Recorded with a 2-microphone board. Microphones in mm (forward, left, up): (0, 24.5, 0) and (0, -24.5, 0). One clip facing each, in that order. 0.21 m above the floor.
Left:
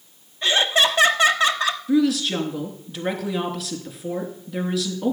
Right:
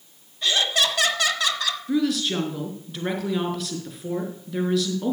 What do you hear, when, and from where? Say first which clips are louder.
0.4 s laughter: left 4 dB; 25° left (ahead or behind), 1.2 m
1.9 s a woman speaking: left 3 dB; centre (ahead or behind), 3 m